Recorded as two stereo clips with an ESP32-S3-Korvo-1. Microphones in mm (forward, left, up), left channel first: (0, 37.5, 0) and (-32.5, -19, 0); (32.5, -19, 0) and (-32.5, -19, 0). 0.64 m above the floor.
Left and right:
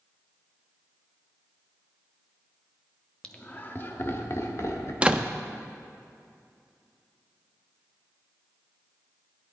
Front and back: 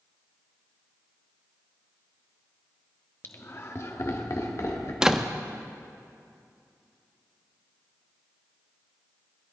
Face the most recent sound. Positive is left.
turn(degrees=-125)